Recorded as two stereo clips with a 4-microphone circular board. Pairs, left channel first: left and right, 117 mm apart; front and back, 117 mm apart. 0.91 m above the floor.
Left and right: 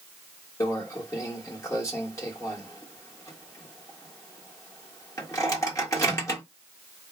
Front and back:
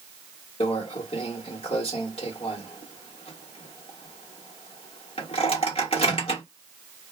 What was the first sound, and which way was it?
A microwave, 30° left.